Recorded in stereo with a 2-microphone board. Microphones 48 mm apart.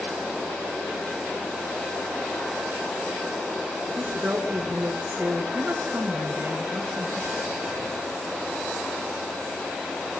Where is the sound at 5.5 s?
50° right (ahead or behind), 2 m.